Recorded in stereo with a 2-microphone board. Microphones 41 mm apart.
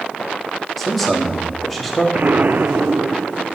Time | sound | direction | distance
0.8 | a man speaking | centre (ahead or behind) | 2 m
2.1 | an explosion | 50° right (ahead or behind) | 0.7 m